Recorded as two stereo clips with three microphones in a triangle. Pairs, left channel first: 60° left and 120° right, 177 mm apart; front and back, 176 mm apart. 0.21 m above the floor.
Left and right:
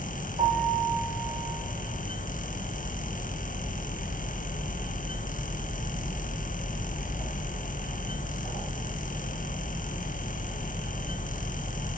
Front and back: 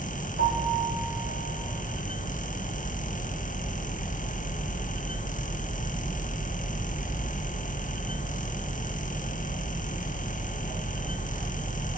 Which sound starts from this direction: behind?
A piano, at 0.4 s.